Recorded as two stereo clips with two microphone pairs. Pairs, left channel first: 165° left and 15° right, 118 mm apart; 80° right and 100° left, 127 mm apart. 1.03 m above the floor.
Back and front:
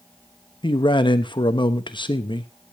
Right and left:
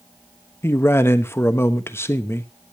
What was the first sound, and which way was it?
A man speaking, 150° right.